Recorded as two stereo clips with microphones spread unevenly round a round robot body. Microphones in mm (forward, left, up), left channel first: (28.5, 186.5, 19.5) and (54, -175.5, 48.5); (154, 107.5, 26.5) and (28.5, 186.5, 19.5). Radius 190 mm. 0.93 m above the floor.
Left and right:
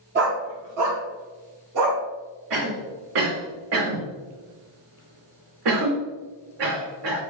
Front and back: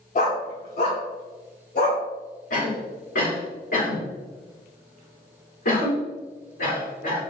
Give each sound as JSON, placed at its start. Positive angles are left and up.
{"t": 0.1, "sound": "a dog barking", "azimuth_deg": -30, "distance_m": 0.6}
{"t": 2.5, "sound": "a cough", "azimuth_deg": -70, "distance_m": 1.9}